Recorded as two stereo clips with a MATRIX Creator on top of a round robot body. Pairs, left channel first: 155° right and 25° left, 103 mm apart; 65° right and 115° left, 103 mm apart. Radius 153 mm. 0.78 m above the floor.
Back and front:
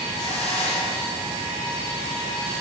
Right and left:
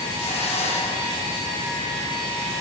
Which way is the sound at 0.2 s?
75° right.